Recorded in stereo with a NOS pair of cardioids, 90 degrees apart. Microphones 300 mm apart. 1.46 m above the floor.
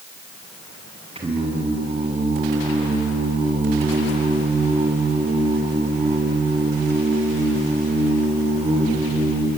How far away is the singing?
About 6.5 m.